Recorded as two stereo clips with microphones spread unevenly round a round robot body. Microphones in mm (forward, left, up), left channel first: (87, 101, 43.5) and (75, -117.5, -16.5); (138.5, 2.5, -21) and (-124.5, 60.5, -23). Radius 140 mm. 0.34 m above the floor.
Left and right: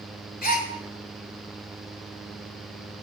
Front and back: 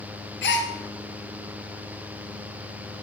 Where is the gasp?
35° left, 2.0 m.